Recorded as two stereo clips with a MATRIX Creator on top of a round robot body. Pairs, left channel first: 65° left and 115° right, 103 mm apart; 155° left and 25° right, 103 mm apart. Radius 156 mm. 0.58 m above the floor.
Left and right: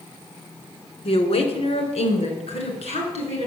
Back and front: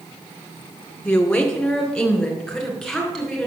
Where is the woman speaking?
80° left, 2 m; by 3.5 s 70° left, 5.5 m.